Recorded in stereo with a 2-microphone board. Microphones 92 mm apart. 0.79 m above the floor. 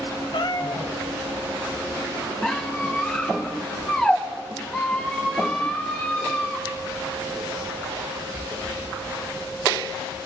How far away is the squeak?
About 7.5 m.